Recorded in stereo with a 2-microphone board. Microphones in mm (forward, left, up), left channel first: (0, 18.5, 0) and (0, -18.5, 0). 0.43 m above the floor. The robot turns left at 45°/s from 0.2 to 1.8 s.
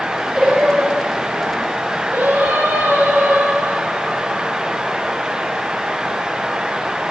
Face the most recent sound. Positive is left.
turn(degrees=-90)